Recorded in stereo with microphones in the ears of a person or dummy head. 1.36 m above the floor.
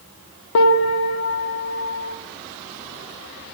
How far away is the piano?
About 1.5 m.